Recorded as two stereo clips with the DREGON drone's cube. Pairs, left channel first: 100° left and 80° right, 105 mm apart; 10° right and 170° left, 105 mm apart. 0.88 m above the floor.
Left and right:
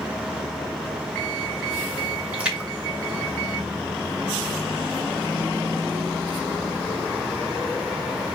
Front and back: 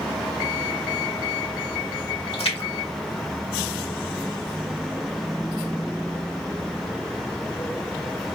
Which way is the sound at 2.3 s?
Straight ahead.